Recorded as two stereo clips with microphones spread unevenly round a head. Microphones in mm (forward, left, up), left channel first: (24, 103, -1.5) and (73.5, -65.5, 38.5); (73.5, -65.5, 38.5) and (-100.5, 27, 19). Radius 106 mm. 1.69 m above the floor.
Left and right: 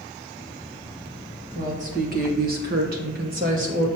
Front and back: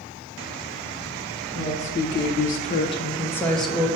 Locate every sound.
1.6 s a woman speaking: 45° right, 1.6 m; by 3.9 s 120° right, 1.2 m